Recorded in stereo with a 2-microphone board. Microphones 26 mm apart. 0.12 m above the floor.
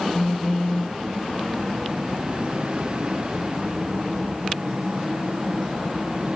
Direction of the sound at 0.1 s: 80° left.